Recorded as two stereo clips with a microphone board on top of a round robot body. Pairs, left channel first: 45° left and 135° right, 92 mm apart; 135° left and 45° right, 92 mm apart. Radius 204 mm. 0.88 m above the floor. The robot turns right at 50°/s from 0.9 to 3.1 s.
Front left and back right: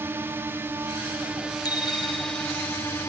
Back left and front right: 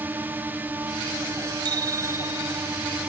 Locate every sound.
0.0 s a drone: 95° right; by 3.1 s 15° left
1.6 s a bicycle bell: straight ahead; by 2.7 s 50° left